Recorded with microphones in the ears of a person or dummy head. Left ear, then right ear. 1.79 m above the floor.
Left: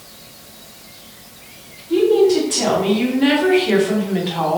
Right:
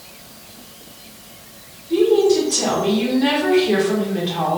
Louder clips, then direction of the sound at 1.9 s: Left 1 dB; 30° left (ahead or behind).